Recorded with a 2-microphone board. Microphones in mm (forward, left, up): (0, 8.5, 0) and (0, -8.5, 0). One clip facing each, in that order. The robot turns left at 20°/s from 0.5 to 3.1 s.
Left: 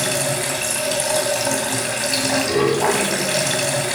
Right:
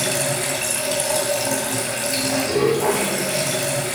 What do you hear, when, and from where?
0.0 s running water: 170° left, 2.5 m; by 4.0 s 115° left, 2.5 m